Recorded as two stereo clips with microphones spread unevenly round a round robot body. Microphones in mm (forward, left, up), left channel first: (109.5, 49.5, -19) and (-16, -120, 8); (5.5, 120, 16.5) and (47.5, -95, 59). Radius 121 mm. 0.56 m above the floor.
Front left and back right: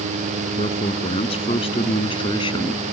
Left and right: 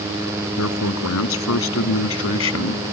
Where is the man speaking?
120° left; by 2.8 s 125° left.